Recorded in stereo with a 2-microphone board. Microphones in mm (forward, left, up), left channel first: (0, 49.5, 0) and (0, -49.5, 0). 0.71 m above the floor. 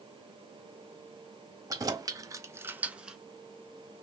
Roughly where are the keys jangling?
Right.